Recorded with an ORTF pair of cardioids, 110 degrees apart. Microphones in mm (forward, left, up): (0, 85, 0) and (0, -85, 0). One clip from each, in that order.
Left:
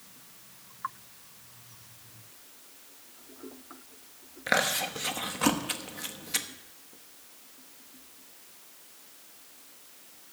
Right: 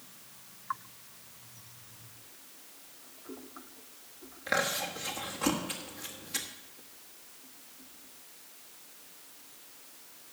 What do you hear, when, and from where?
4.5 s chewing: 35° left, 1.1 m